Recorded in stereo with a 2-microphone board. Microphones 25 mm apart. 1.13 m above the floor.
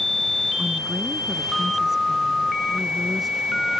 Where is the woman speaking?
15° right (ahead or behind); by 3.7 s centre (ahead or behind).